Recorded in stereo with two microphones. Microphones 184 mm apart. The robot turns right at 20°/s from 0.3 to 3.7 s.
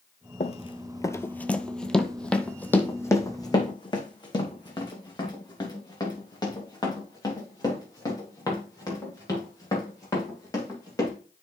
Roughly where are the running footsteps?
Left.